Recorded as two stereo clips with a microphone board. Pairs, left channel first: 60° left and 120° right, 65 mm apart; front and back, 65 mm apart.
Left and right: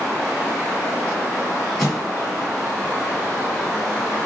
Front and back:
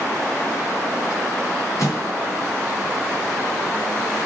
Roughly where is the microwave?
Ahead right.